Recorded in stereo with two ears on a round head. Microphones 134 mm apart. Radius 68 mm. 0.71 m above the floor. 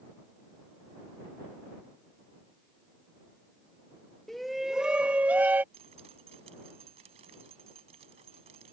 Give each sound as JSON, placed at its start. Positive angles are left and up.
{"t": 4.3, "sound": "a shout", "side_deg": 0}
{"t": 5.7, "sound": "dripping", "side_deg": -40}